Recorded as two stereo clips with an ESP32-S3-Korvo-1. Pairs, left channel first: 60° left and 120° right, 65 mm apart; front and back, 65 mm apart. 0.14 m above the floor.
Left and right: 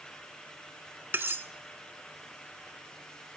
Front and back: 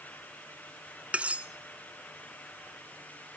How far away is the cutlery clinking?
About 0.8 m.